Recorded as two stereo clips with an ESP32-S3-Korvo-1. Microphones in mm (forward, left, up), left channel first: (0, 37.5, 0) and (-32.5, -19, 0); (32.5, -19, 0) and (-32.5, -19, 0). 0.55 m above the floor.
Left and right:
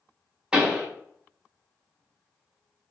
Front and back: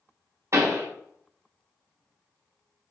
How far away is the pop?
About 0.9 m.